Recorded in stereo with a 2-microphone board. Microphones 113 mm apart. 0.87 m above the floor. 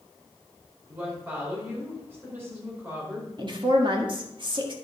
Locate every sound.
0.9 s a woman speaking: 20° right (ahead or behind), 4 m
3.4 s a woman speaking: 45° right (ahead or behind), 1.5 m